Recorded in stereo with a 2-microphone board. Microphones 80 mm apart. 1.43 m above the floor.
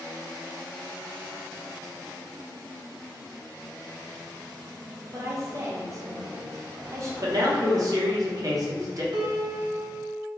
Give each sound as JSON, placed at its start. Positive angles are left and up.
{"t": 5.1, "sound": "a woman speaking", "side_deg": -40, "distance_m": 0.9}
{"t": 7.2, "sound": "a man speaking", "side_deg": -50, "distance_m": 0.9}
{"t": 9.1, "sound": "a piano", "side_deg": -80, "distance_m": 0.6}